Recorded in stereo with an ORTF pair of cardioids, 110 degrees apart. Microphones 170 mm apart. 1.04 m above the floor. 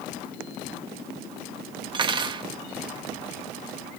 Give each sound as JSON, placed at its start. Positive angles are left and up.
{"t": 1.9, "sound": "cutlery clinking", "azimuth_deg": -30, "distance_m": 0.7}